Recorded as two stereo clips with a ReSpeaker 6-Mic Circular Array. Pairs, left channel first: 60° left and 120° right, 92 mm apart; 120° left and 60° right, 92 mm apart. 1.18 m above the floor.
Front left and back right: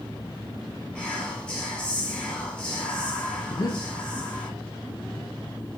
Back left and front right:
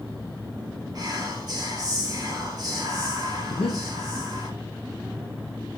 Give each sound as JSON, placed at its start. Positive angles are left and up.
{"t": 0.9, "sound": "whispering", "azimuth_deg": -20, "distance_m": 1.6}
{"t": 3.5, "sound": "breathing", "azimuth_deg": 105, "distance_m": 0.7}